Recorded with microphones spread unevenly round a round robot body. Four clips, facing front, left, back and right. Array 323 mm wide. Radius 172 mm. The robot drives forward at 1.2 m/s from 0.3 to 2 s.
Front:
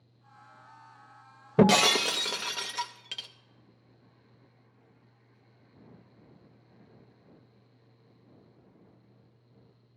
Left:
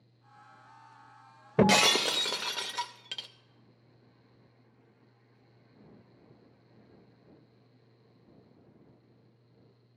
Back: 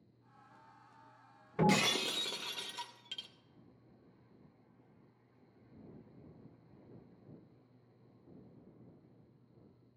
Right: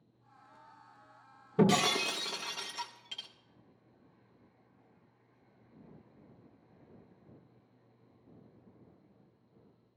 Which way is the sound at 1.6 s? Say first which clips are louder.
Left 3 dB, front 9 dB; 15° left.